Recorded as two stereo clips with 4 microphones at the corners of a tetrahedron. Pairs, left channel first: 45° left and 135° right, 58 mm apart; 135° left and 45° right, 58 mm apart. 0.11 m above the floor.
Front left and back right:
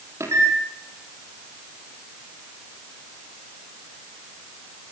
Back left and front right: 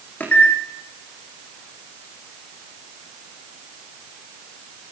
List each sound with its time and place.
0.2 s a microwave: 170° right, 3.5 m